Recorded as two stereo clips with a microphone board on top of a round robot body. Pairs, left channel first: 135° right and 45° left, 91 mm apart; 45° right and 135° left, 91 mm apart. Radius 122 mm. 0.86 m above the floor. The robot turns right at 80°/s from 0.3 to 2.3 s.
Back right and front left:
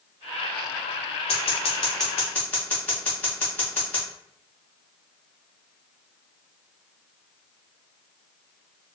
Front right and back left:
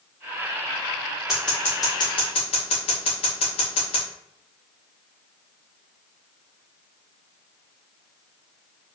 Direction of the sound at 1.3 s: 140° right.